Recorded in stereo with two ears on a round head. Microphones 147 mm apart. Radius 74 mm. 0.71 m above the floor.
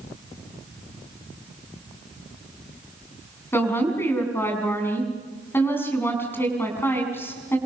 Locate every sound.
3.5 s a woman speaking: 15° left (ahead or behind), 6 m